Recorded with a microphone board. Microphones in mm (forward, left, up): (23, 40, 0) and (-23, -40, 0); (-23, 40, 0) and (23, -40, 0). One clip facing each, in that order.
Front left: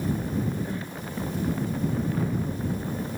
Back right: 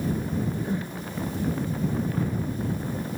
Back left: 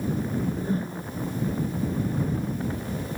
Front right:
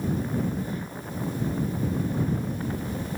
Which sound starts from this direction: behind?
A whoosh, at 0.3 s.